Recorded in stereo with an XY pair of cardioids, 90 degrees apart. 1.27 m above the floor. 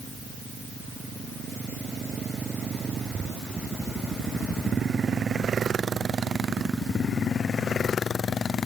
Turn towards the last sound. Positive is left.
No sound to turn to.